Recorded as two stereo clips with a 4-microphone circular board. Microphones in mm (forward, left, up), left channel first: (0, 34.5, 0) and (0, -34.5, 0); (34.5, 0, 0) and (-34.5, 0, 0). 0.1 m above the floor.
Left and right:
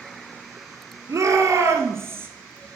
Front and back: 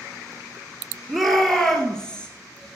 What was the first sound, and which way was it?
A shout, 90° right.